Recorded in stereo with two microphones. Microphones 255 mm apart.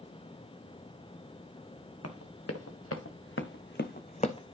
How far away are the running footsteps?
About 1.7 m.